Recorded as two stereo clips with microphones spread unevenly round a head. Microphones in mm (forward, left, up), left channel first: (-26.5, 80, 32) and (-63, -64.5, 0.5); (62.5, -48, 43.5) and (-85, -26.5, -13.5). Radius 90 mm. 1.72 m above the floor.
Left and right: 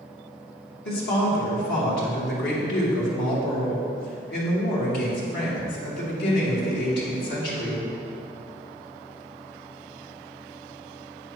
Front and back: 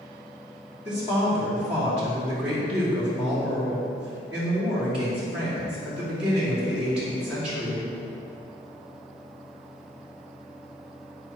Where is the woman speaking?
85° left, 2.5 m.